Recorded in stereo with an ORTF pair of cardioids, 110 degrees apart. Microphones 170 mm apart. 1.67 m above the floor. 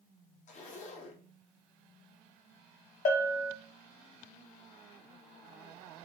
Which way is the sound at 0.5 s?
45° left.